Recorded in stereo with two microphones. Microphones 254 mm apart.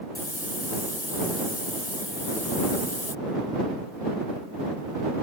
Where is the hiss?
60° left (ahead or behind).